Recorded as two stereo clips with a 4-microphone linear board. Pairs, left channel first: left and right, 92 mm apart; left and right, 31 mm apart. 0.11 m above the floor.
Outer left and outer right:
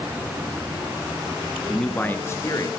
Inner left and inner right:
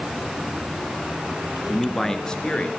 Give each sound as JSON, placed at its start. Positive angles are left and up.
{"t": 1.7, "sound": "a man speaking", "side_deg": 5, "distance_m": 1.5}